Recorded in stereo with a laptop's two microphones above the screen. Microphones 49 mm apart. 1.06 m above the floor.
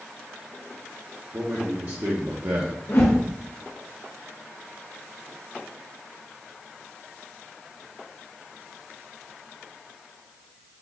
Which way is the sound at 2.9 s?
55° left (ahead or behind).